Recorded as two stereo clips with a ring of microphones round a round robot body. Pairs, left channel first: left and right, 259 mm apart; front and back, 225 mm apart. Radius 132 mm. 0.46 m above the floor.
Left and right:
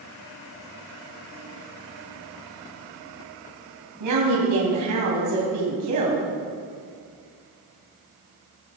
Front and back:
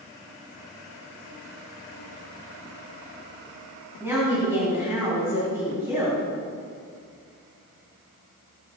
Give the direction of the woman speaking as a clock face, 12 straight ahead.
3 o'clock.